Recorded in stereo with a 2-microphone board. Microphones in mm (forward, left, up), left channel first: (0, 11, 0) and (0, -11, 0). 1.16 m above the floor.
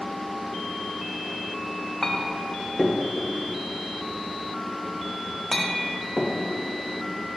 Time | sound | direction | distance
2.0 | a clink | 20° left (ahead or behind) | 0.6 m